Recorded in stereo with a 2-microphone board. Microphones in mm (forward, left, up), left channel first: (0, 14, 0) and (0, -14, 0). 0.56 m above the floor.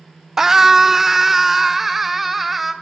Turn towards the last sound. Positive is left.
turn(degrees=-5)  # may be behind; listen again after turning